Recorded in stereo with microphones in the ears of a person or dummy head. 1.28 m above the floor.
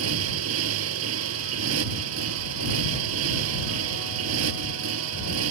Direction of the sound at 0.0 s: 80° right.